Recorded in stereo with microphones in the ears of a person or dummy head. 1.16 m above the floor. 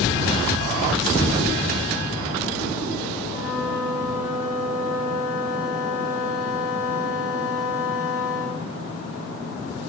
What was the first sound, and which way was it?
A flute, 85° left.